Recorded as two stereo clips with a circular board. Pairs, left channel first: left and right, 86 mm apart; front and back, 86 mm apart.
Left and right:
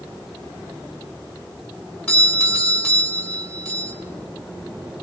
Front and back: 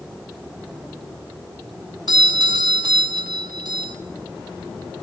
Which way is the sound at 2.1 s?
155° left.